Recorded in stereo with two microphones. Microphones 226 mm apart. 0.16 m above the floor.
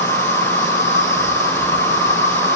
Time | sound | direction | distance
0.0 | an insect | 30° left (ahead or behind) | 6.5 m